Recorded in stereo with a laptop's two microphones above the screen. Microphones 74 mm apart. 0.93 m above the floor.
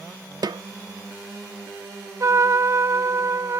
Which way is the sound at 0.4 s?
65° right (ahead or behind).